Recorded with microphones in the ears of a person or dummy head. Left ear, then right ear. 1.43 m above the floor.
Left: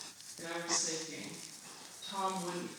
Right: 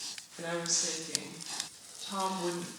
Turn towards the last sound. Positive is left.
turn(degrees=-65)  # may be behind; listen again after turning